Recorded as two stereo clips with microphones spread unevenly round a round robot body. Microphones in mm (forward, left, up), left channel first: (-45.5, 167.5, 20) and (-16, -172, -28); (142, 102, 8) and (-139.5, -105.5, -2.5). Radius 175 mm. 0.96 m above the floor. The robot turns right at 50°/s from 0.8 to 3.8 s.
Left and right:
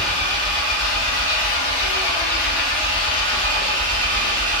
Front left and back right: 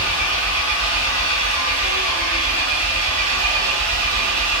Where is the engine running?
45° left, 1.4 m; by 4.6 s 165° right, 1.4 m.